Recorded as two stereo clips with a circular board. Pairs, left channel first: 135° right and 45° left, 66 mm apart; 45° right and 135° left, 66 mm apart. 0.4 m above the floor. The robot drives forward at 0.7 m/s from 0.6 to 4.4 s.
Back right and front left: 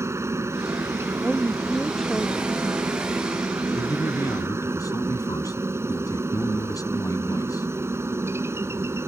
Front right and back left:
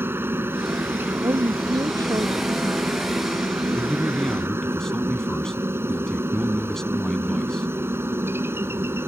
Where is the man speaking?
120° right; by 7.7 s 125° right.